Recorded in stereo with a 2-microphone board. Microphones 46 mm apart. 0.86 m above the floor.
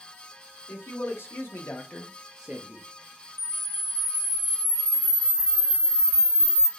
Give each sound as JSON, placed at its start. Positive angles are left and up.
{"t": 0.7, "sound": "a man speaking", "side_deg": 75, "distance_m": 1.4}
{"t": 3.4, "sound": "a camera shutter", "side_deg": -65, "distance_m": 0.8}